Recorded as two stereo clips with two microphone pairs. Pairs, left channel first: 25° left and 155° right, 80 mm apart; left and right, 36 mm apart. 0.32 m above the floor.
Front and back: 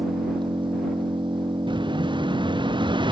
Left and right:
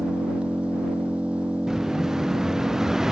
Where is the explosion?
165° right.